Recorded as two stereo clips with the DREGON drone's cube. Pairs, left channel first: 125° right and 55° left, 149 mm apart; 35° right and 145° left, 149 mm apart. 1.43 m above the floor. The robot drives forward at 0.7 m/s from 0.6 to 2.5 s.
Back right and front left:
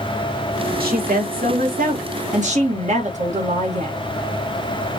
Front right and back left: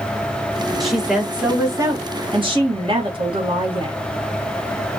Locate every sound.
0.8 s a woman speaking: 55° left, 2 m; by 4.0 s 90° left, 1.7 m